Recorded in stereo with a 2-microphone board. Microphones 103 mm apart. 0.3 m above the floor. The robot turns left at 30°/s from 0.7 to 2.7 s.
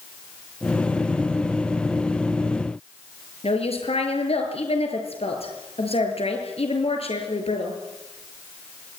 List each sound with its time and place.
3.4 s a woman speaking: 70° left (ahead or behind), 6.5 m